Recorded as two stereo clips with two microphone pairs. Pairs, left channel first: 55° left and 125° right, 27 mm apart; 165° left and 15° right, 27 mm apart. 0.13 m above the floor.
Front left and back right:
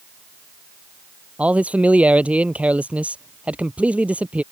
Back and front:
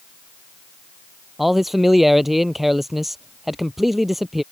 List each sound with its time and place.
1.4 s a man speaking: 100° right